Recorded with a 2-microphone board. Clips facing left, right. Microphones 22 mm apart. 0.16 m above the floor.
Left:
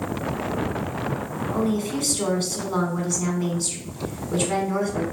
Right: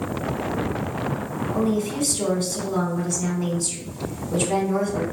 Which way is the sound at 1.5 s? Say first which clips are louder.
Right 1 dB; 25° left (ahead or behind).